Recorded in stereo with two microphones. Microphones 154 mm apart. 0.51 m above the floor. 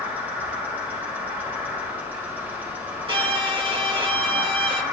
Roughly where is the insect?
Centre.